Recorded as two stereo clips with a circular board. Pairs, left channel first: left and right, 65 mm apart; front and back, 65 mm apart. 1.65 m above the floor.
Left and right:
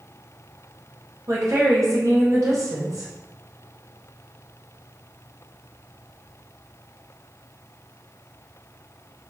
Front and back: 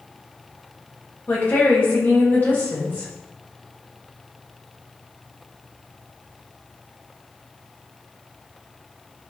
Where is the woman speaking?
55° right, 1.5 m.